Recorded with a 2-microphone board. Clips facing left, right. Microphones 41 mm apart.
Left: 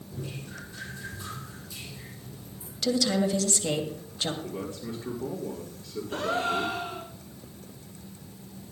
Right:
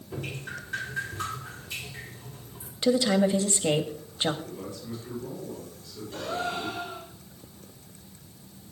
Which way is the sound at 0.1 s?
70° right (ahead or behind).